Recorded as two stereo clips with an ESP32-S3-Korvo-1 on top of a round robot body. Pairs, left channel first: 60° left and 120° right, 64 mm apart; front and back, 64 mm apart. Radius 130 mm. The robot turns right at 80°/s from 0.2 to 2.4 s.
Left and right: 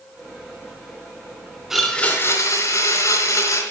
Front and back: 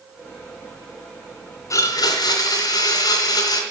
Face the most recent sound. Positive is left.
turn(degrees=20)